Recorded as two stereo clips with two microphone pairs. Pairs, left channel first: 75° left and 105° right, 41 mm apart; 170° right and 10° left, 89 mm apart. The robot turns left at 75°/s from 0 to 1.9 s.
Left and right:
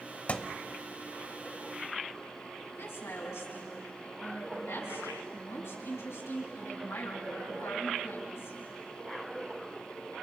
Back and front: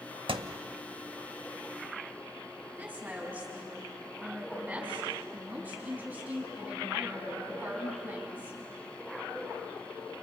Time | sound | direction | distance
0.3 | a thud | 20° left | 0.8 m
2.7 | a woman speaking | 85° left | 6 m